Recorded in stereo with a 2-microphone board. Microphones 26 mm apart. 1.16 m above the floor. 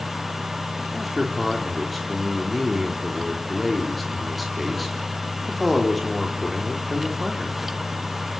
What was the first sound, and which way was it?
A man speaking, centre (ahead or behind).